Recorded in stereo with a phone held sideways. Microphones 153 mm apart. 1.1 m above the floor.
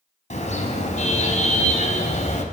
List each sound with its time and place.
0.3 s a car horn: 50° left (ahead or behind), 3.5 m; by 2.5 s 45° left (ahead or behind), 2.5 m